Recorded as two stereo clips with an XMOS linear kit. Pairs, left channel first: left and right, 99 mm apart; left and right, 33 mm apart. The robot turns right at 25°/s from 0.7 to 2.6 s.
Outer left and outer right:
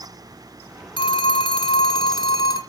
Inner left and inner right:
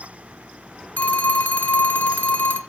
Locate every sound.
1.0 s a phone ringing: 85° left, 1.6 m; by 2.6 s 125° left, 1.6 m